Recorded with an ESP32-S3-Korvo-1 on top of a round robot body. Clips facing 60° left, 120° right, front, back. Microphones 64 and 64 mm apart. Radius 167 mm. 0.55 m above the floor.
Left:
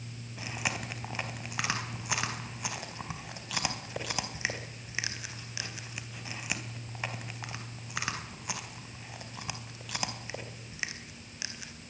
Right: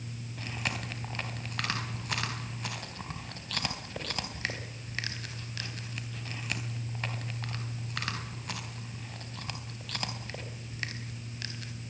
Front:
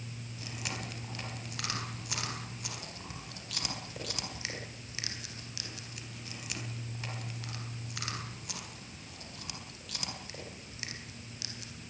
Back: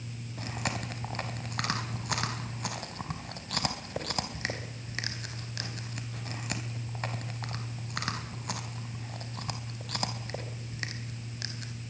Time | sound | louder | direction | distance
0.4 | chewing | left 1 dB, back 6 dB | 140° left | 3.5 m